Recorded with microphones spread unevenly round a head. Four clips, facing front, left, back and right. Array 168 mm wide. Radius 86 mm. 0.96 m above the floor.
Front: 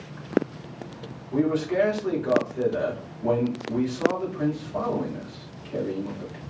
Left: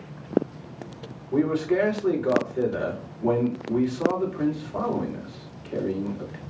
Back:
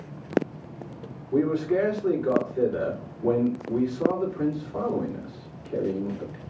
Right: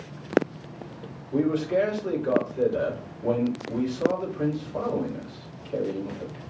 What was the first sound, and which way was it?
A man speaking, 85° left.